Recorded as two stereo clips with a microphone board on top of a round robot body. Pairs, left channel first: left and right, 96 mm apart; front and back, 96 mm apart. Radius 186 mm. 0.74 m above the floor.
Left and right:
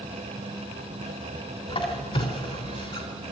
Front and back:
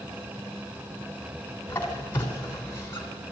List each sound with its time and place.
1.7 s a squeak: 65° left, 3 m